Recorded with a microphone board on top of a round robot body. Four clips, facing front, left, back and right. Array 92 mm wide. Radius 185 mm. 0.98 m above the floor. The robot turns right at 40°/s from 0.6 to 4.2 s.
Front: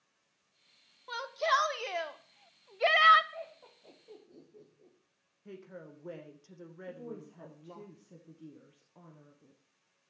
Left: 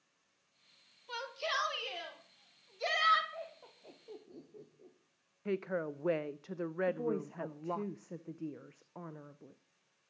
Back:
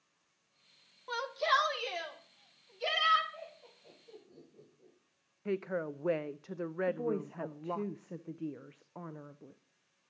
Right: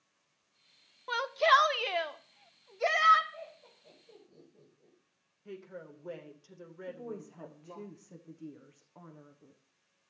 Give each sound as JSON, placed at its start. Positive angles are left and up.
{"t": 1.1, "sound": "a shout", "azimuth_deg": -95, "distance_m": 1.7}
{"t": 3.3, "sound": "laughter", "azimuth_deg": 40, "distance_m": 3.5}
{"t": 5.5, "sound": "a woman speaking", "azimuth_deg": 135, "distance_m": 0.6}
{"t": 6.9, "sound": "a woman speaking", "azimuth_deg": 145, "distance_m": 0.9}